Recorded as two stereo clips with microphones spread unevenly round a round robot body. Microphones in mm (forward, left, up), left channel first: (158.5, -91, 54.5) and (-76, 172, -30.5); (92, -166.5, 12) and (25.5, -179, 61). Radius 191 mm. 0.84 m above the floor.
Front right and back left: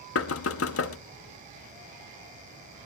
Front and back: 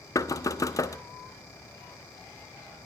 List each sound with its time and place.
0.1 s knocking: 10° left, 1.1 m